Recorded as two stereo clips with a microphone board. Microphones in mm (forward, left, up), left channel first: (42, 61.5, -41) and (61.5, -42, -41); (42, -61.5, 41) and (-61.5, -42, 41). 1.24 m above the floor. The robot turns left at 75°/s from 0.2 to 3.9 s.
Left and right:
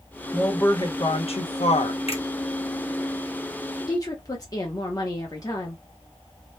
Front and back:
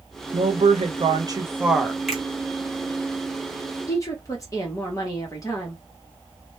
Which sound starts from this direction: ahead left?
A woman speaking, at 3.9 s.